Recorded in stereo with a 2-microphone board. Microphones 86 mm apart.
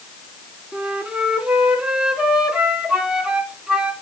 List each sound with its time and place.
0.7 s a flute: 10° right (ahead or behind), 1.7 m